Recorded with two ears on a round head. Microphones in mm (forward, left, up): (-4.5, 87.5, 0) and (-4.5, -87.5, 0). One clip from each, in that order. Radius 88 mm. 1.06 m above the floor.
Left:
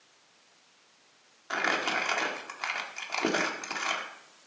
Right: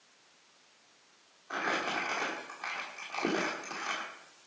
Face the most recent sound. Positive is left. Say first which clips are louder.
# left 4 dB
turn(degrees=70)  # may be behind; listen again after turning